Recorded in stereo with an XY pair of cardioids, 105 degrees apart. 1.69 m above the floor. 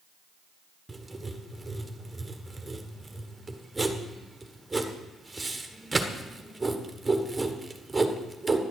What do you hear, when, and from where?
0.9 s writing: 15° right, 1.4 m